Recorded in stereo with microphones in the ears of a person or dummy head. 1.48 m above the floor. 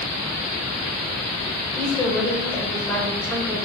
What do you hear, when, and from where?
1.8 s a woman speaking: 10° left (ahead or behind), 5 m